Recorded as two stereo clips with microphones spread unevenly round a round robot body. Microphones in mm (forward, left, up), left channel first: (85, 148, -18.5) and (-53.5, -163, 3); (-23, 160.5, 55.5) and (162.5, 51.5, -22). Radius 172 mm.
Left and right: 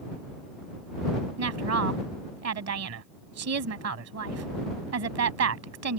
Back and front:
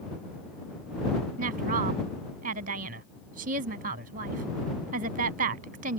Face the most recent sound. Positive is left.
turn(degrees=-70)